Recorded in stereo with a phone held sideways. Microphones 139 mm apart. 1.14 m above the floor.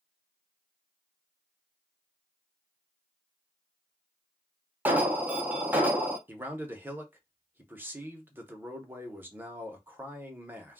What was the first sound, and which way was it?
An alarm, 10° right (ahead or behind).